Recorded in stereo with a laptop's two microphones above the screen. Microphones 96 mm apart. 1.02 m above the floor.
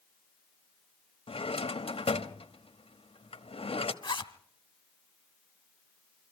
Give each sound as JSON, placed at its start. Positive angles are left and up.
{"t": 1.3, "sound": "a drawer", "side_deg": 70, "distance_m": 1.1}
{"t": 4.0, "sound": "a zipper", "side_deg": 55, "distance_m": 1.0}